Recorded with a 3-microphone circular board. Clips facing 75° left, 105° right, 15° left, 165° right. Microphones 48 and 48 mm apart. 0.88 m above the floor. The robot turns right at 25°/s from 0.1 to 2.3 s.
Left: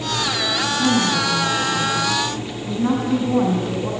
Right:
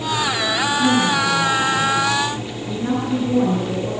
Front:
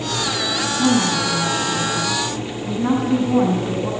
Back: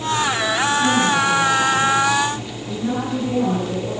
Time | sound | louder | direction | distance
0.8 | a woman speaking | right 1 dB, front 2 dB | 5° right | 9.5 m